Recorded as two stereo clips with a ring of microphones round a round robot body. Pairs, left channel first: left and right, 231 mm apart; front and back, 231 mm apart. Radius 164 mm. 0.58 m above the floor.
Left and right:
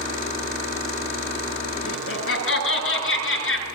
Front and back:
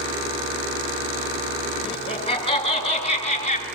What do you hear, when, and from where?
1.8 s laughter: 65° left, 8.5 m; by 3.6 s 60° left, 9 m